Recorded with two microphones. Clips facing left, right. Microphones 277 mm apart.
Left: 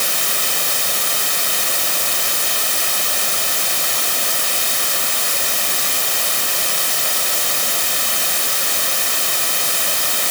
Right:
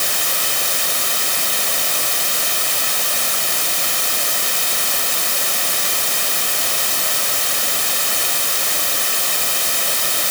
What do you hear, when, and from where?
Only background noise.